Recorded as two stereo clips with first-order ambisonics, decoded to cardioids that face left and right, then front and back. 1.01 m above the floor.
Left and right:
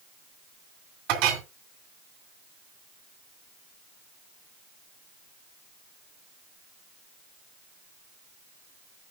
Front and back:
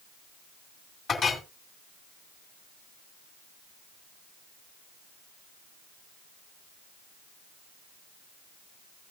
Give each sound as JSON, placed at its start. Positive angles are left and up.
{"t": 1.1, "sound": "a clink", "azimuth_deg": -70, "distance_m": 2.5}